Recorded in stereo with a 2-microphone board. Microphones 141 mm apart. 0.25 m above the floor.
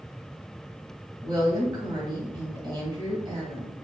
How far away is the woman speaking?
About 1.3 m.